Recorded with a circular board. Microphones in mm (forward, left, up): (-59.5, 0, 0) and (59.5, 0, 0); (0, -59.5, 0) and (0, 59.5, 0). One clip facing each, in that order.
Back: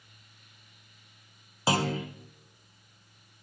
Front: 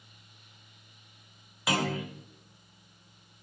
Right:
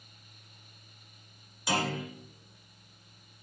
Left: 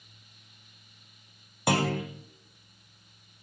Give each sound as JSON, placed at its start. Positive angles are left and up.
{"t": 1.7, "sound": "a clunk", "azimuth_deg": 120, "distance_m": 1.6}